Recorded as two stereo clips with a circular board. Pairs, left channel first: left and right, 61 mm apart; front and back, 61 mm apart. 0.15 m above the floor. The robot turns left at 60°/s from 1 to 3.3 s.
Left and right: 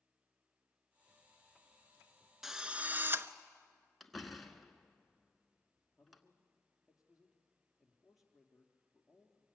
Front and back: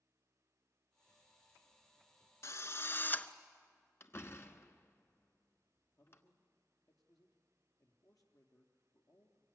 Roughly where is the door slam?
Ahead.